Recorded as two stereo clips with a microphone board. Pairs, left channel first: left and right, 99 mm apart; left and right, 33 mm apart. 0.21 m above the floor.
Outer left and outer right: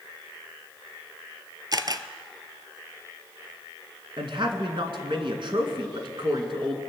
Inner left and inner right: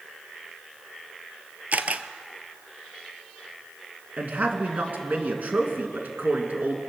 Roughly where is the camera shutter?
Right.